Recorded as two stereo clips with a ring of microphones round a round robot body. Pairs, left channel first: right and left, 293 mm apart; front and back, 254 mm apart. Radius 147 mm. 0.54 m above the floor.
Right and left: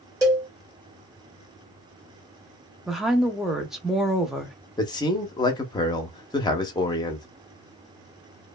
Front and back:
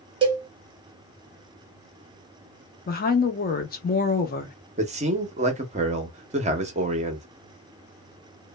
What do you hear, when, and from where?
0.2 s a cowbell: 150° left, 1.1 m
2.9 s a woman speaking: 5° left, 0.7 m
4.8 s a man speaking: 150° right, 0.7 m